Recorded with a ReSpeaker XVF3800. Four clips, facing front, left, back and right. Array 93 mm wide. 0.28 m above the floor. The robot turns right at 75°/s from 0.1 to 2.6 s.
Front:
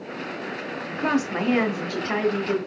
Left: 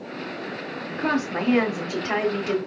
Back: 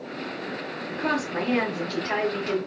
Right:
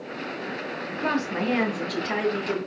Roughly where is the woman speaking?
Ahead.